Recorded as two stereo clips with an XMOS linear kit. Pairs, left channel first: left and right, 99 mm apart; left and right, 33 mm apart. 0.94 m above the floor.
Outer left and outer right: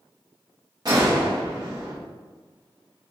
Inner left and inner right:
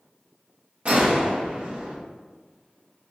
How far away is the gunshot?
About 1.4 m.